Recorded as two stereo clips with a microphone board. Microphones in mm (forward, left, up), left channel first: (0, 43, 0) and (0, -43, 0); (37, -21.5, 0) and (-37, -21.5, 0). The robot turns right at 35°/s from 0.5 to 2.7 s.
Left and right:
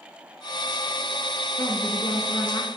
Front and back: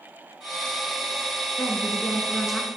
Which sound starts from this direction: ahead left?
A woman speaking, at 1.6 s.